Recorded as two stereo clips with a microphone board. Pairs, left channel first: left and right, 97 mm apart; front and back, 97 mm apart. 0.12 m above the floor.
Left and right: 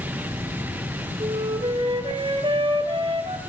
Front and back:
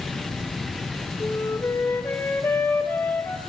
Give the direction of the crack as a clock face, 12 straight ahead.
No crack in this recording.